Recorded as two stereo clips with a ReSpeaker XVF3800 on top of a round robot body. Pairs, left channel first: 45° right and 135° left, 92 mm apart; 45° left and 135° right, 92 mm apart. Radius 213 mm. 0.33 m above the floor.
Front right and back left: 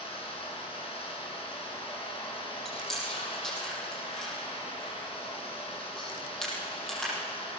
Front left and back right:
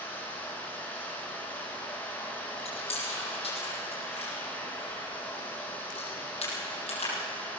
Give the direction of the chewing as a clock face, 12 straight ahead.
11 o'clock.